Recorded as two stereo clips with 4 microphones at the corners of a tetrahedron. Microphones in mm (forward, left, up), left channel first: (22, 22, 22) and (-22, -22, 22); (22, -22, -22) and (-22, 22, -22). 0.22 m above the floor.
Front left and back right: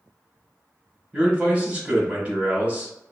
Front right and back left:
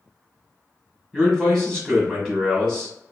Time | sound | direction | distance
1.1 | a man speaking | 115° right | 1.4 m